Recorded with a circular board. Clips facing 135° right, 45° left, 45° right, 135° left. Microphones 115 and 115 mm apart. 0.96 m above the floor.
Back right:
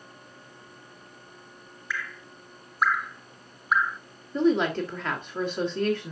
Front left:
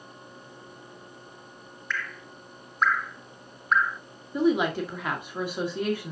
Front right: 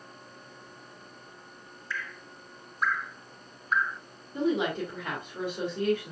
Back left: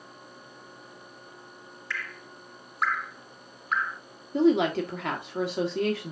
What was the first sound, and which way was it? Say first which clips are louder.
Dripping: front left 1 dB, even; 140° left.